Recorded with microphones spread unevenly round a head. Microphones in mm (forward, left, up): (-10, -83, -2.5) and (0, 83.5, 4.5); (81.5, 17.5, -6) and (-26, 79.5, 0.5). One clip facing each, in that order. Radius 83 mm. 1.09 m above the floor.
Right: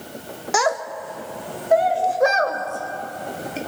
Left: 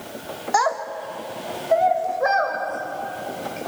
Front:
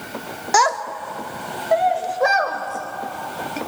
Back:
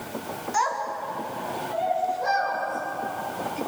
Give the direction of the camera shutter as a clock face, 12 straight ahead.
No camera shutter in this recording.